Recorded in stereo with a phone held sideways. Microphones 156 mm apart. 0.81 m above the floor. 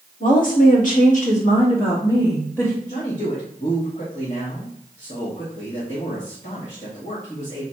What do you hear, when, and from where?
0.2 s a woman speaking: 60° left (ahead or behind), 2.0 m; by 2.7 s 15° left (ahead or behind), 1.8 m
2.8 s a man speaking: 50° left (ahead or behind), 1.4 m